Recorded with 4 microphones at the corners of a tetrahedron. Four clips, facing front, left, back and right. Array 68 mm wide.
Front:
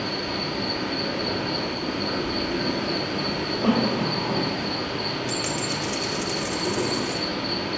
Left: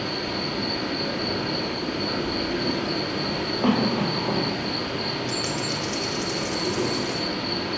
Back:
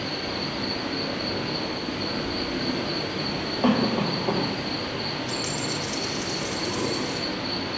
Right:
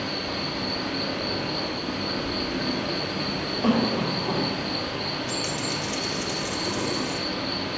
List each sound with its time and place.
0.0 s an insect: 60° left, 1.4 m
3.6 s a cough: 150° left, 1.7 m
5.3 s a dropped coin: 30° left, 0.7 m